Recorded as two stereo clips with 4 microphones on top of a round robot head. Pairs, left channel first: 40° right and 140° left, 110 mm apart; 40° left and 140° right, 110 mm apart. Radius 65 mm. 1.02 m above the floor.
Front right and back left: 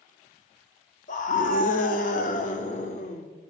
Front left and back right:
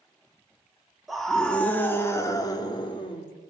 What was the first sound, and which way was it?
A scream, 55° right.